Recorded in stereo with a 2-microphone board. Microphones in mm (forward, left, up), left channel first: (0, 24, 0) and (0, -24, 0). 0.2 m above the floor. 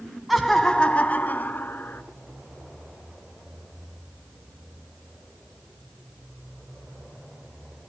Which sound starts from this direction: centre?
Laughter, at 0.3 s.